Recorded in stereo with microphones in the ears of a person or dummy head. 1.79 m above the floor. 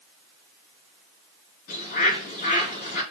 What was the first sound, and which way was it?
A bird, 50° left (ahead or behind).